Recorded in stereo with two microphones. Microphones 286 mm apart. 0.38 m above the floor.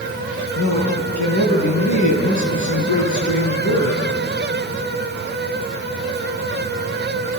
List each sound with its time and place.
0.6 s a man speaking: 80° left, 6.5 m